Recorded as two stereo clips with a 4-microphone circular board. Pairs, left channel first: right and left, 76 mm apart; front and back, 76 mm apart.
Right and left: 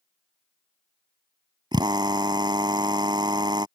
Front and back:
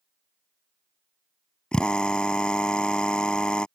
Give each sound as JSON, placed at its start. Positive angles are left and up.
{"t": 1.7, "sound": "a drill", "azimuth_deg": 80}